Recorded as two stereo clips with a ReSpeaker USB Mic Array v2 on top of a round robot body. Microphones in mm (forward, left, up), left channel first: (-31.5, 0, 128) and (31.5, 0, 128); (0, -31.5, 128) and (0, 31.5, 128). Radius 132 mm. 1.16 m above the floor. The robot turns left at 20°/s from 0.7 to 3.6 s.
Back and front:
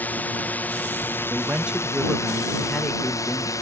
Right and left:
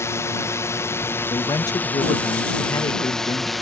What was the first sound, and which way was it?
A drone, 120° right.